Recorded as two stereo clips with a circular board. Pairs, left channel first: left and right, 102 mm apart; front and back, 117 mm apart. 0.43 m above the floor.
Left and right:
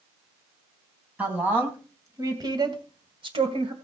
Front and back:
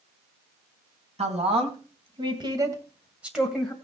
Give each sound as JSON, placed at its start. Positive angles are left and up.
{"t": 1.2, "sound": "a woman speaking", "azimuth_deg": -165, "distance_m": 3.5}